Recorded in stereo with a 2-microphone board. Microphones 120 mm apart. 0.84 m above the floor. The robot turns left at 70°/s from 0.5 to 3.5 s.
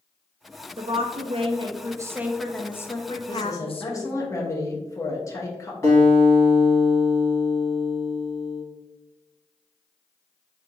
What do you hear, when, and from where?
0.8 s a woman speaking: 60° right, 0.5 m; by 4.3 s 105° left, 0.5 m
3.3 s a woman speaking: 35° left (ahead or behind), 0.8 m; by 5.7 s 25° left (ahead or behind), 0.8 m
5.8 s a guitar: 25° left (ahead or behind), 1.8 m